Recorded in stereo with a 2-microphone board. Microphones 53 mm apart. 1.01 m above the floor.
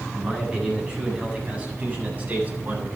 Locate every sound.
0.1 s a man speaking: 15° right (ahead or behind), 9 m; by 2.9 s 40° right (ahead or behind), 8 m